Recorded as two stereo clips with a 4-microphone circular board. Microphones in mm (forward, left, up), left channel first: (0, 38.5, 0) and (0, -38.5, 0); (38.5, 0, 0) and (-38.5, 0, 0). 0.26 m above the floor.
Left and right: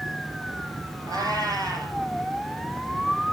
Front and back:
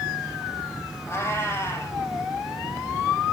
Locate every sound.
1.1 s a cat meowing: 55° right, 5 m